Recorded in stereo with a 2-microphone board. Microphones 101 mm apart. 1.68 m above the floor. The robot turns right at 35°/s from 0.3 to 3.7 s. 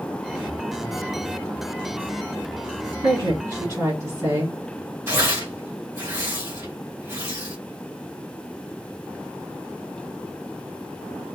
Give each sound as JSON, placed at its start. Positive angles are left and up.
{"t": 3.0, "sound": "a woman speaking", "side_deg": -45, "distance_m": 2.5}
{"t": 5.1, "sound": "tearing paper", "side_deg": -25, "distance_m": 2.5}